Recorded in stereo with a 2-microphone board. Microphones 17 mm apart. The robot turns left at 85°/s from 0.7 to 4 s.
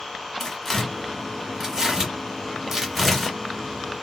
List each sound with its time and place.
0.4 s tearing paper: 15° left (ahead or behind), 1.4 m; by 3.4 s 5° left (ahead or behind), 1.4 m